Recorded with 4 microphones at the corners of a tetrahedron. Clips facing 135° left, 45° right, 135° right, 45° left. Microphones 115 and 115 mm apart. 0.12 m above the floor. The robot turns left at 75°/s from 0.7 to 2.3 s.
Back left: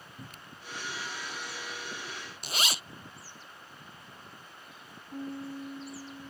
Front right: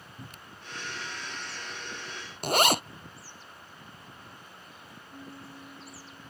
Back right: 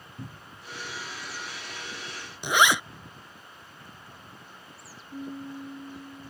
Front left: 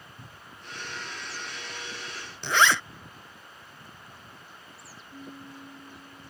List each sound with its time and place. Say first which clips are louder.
0.2 s a cupboard door: front right 1 dB, back right 8 dB; 140° right
2.4 s a zipper: front right 12 dB, back right 1 dB; 60° right
5.1 s a piano: back left 9 dB, back right 7 dB; 175° left